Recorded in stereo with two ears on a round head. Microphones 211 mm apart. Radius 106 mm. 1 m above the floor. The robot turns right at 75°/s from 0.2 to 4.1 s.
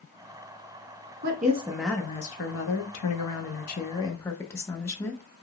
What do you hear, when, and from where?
1.2 s a woman speaking: 45° right, 1.0 m; by 5.2 s 170° left, 1.0 m